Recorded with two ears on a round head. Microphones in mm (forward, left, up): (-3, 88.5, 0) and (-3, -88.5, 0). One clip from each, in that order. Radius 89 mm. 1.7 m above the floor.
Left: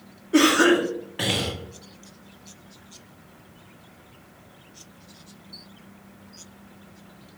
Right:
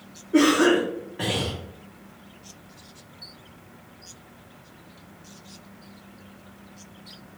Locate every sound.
0.3 s a cough: 75° left (ahead or behind), 1.3 m